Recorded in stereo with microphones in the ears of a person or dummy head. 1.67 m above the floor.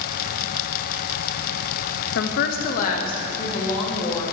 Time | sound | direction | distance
2.1 | a woman speaking | 65° left (ahead or behind) | 0.5 m